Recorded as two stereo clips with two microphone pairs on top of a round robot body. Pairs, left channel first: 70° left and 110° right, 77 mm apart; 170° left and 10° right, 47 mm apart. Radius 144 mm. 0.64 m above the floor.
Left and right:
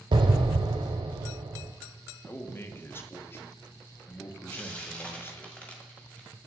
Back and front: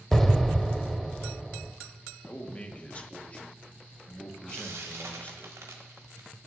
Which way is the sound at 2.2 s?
115° left.